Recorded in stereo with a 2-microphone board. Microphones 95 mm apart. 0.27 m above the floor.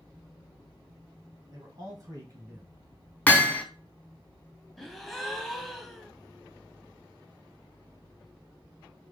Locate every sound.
1.5 s a man speaking: 50° right (ahead or behind), 1.9 m; by 2.8 s 20° right (ahead or behind), 1.4 m
3.3 s hammering: 20° left (ahead or behind), 0.8 m
4.8 s a gasp: centre (ahead or behind), 0.5 m